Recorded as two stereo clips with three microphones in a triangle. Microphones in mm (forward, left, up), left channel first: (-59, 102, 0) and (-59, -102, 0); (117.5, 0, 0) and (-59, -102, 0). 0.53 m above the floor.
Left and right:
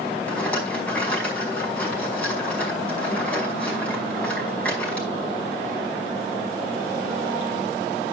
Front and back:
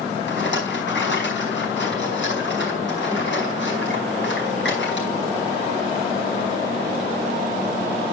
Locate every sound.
0.3 s a rattle: 5° left, 4.5 m